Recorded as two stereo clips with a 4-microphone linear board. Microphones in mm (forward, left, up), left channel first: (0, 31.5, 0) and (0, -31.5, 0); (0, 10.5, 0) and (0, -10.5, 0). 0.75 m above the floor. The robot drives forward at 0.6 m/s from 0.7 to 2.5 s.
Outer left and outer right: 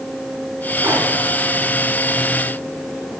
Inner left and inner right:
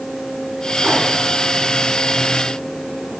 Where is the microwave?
35° right (ahead or behind), 4.5 m.